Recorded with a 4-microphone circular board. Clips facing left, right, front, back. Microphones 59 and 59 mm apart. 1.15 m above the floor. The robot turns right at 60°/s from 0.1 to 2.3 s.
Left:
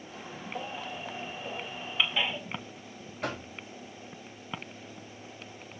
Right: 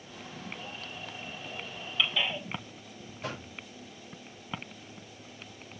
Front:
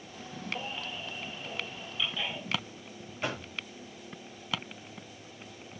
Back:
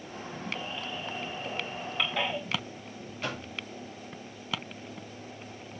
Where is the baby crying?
60° left, 2 m; by 2.4 s 165° left, 2 m.